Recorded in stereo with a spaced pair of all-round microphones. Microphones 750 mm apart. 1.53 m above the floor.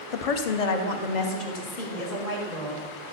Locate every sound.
0.1 s a woman speaking: 50° left (ahead or behind), 0.7 m; by 2.8 s 75° left (ahead or behind), 2.5 m